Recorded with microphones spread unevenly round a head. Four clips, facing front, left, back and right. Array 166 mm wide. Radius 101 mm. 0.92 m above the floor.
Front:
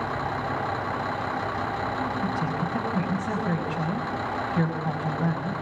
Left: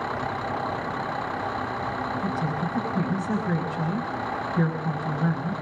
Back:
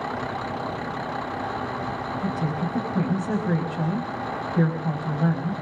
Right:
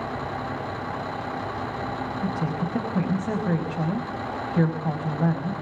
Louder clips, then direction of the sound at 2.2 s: Even, even; 110° right.